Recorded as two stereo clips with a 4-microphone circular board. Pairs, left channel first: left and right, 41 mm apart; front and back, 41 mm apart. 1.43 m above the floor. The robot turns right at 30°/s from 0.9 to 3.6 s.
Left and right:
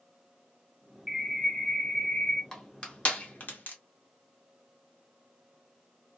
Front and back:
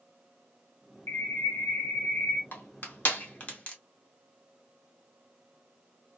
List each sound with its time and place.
1.1 s a bird: straight ahead, 0.9 m; by 2.4 s 40° left, 0.9 m
2.5 s crushing: 15° left, 1.0 m; by 3.8 s 50° left, 1.0 m